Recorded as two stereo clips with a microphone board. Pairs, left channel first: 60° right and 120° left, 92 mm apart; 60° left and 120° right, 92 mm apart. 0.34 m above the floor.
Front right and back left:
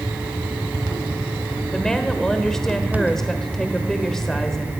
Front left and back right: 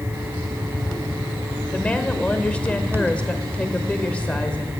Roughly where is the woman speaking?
Ahead.